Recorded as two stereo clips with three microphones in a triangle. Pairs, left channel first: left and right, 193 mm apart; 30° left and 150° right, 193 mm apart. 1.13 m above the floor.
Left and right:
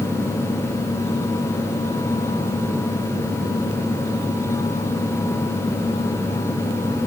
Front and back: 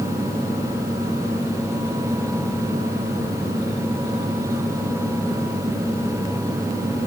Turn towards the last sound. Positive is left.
No sound to turn to.